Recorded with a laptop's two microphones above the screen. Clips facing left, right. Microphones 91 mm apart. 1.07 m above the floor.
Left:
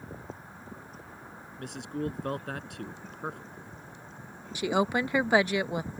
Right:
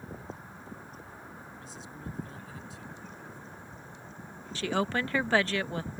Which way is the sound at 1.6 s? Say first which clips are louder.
Left 15 dB; 70° left (ahead or behind).